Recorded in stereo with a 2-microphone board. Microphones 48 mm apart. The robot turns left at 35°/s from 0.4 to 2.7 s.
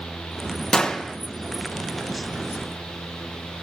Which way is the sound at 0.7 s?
15° left (ahead or behind).